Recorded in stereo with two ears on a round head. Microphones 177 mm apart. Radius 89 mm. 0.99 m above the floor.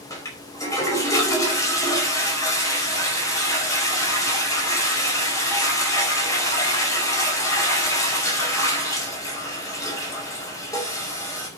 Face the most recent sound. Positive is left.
turn(degrees=15)  # may be behind; listen again after turning